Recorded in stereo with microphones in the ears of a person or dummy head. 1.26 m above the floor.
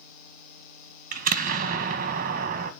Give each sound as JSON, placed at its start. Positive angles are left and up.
{"t": 1.1, "sound": "an explosion", "side_deg": -40, "distance_m": 0.6}